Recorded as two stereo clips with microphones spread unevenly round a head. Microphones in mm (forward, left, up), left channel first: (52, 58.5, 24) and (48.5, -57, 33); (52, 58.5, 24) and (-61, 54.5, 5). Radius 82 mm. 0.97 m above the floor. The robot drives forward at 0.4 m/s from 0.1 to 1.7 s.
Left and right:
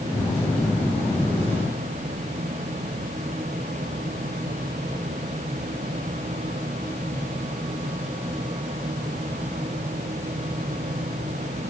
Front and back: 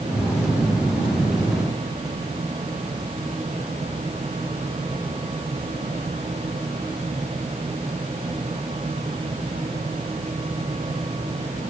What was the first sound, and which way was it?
Only background noise.